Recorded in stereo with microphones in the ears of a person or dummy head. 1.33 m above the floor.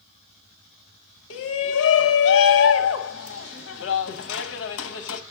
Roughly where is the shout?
Left.